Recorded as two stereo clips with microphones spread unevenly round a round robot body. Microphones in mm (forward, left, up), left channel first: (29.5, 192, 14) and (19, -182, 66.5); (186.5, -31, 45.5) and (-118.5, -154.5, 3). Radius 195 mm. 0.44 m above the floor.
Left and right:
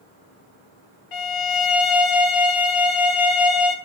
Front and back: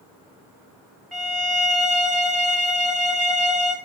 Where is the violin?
115° left, 3 m.